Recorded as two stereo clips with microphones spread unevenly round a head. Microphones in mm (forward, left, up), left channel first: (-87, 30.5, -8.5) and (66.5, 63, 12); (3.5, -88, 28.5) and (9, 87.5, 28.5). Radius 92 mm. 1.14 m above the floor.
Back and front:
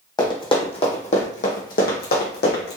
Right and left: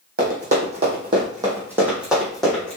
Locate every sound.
0.2 s running footsteps: 130° left, 2.5 m; by 2.8 s 175° right, 2.5 m